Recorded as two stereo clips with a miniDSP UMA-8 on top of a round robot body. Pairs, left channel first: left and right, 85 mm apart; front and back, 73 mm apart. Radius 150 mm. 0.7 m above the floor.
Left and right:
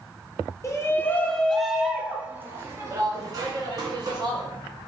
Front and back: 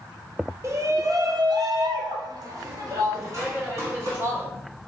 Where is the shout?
140° left, 1.1 m; by 4.5 s 130° right, 2.5 m.